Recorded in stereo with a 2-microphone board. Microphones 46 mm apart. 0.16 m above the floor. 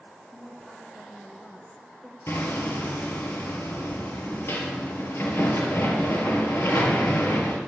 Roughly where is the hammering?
Left.